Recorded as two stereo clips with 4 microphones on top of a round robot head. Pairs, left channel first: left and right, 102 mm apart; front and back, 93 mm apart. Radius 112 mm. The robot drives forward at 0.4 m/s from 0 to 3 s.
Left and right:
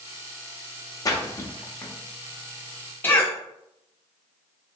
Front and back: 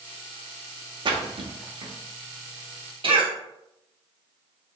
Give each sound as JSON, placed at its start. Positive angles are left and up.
{"t": 1.1, "sound": "a splash", "azimuth_deg": 145, "distance_m": 0.8}
{"t": 3.0, "sound": "a cough", "azimuth_deg": 160, "distance_m": 1.6}